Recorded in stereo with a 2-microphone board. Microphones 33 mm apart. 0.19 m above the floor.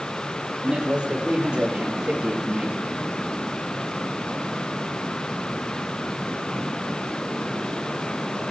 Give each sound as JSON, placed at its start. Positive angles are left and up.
{"t": 0.6, "sound": "a man speaking", "side_deg": -25, "distance_m": 5.0}